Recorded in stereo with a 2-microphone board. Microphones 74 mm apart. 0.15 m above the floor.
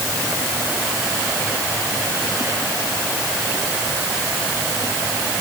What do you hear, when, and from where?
Only background noise.